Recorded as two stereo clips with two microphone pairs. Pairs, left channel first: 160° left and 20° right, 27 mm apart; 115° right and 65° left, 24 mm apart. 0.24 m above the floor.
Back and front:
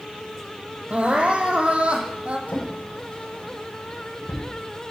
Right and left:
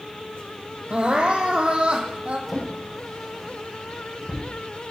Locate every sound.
0.9 s crying: 30° left, 1.5 m
2.5 s a drawer: 160° left, 5.5 m